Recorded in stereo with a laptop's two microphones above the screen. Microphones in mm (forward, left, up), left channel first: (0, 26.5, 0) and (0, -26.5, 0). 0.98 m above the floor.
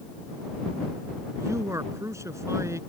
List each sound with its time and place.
1.4 s a man speaking: 65° right (ahead or behind)